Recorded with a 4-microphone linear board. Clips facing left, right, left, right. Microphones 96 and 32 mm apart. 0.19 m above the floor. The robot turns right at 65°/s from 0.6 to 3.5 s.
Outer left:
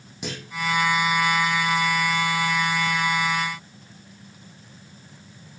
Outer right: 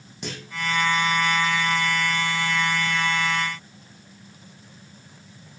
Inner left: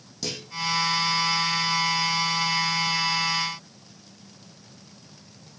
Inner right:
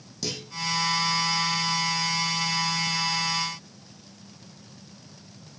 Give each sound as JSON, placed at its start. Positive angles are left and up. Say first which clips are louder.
{"t": 0.2, "sound": "a clunk", "louder": "outer left 1 dB, even", "side_deg": 5, "distance_m": 6.0}